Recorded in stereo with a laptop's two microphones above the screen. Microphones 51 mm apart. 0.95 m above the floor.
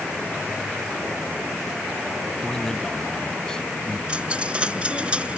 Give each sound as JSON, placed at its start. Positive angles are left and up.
{"t": 2.4, "sound": "a man speaking", "side_deg": 10}
{"t": 4.1, "sound": "a dropped coin", "side_deg": -25}